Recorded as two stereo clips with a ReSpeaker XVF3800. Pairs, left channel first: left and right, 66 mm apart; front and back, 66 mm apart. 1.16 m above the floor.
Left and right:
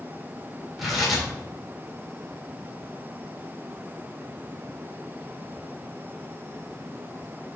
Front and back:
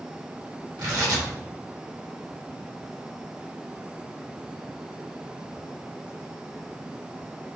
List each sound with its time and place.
0.8 s tearing paper: straight behind, 2.5 m